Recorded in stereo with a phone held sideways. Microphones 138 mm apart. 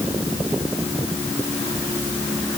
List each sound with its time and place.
Only background noise.